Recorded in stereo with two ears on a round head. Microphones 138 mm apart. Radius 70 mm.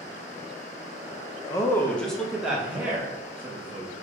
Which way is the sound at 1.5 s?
25° left (ahead or behind).